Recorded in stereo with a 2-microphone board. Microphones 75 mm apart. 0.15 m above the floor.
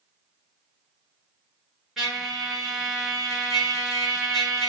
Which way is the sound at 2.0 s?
Centre (ahead or behind).